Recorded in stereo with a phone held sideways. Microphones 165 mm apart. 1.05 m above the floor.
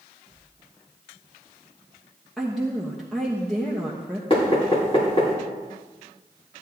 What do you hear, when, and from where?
2.4 s a woman speaking: centre (ahead or behind), 1.3 m
4.3 s knocking: 35° left (ahead or behind), 2.5 m